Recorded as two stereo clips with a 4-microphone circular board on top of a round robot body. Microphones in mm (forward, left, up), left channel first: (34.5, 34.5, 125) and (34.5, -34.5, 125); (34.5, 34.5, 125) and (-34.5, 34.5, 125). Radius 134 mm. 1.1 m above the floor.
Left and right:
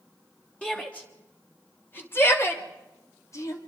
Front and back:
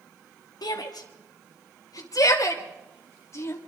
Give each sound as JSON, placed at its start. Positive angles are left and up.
{"t": 0.6, "sound": "a shout", "azimuth_deg": 15, "distance_m": 3.0}